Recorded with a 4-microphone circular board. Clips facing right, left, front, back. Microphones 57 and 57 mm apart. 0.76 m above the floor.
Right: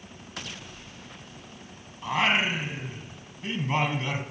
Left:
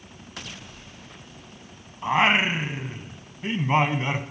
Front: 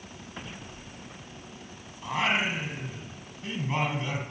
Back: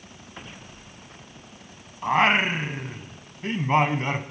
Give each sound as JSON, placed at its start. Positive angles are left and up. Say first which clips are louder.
{"t": 2.0, "sound": "singing", "louder": "left 4 dB, back 7 dB", "azimuth_deg": 145, "distance_m": 1.0}